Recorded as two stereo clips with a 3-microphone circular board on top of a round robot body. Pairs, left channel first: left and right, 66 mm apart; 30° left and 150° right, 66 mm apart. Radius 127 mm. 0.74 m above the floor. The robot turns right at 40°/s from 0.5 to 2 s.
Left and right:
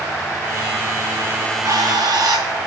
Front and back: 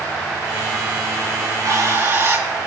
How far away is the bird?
About 7.5 m.